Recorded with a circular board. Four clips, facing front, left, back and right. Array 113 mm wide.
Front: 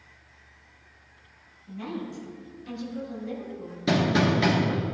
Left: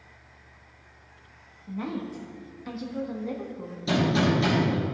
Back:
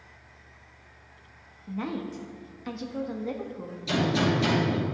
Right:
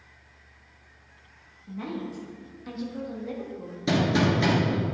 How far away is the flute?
No flute in this recording.